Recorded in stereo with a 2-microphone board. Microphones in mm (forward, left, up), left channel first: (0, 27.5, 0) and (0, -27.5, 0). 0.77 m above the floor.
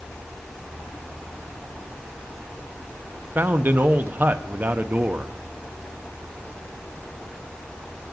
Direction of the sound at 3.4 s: 35° right (ahead or behind).